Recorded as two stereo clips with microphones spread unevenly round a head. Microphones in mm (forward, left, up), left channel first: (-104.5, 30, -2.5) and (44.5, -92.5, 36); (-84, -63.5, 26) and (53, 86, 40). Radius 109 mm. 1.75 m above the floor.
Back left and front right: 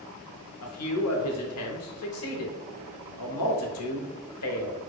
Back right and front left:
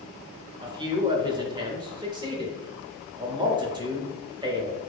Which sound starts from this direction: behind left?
A man speaking, at 0.6 s.